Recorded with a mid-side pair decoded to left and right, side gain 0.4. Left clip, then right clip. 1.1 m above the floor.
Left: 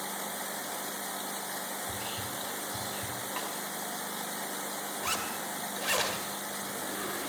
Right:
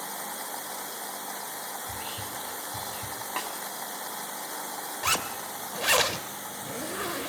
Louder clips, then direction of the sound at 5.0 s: Right 6 dB; 55° right.